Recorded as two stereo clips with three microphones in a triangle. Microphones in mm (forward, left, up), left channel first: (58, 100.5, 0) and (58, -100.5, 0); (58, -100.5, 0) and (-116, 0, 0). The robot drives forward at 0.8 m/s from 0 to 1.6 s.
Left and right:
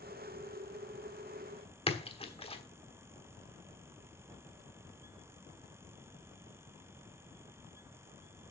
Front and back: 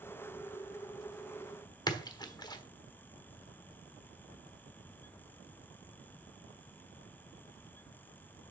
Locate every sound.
1.9 s a splash: 35° left, 1.2 m